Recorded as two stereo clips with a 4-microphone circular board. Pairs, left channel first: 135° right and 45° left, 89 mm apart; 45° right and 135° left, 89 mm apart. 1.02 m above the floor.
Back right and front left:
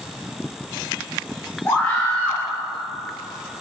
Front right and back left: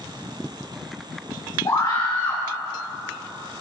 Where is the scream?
75° right, 2.5 m.